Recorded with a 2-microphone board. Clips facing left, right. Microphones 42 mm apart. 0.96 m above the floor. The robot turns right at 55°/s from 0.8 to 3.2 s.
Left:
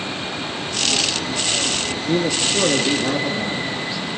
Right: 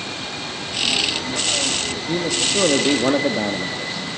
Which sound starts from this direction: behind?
A man speaking, at 2.1 s.